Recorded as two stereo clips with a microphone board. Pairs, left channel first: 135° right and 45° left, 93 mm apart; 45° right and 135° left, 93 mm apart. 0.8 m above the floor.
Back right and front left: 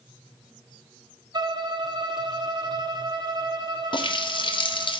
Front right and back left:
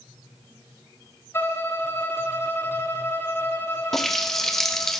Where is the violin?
15° left, 0.6 m.